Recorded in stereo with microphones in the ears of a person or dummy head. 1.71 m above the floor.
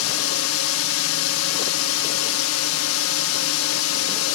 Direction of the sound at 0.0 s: 80° left.